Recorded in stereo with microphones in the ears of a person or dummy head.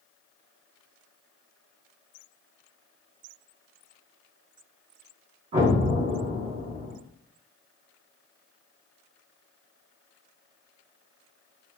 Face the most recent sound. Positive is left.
turn(degrees=-40)  # may be behind; listen again after turning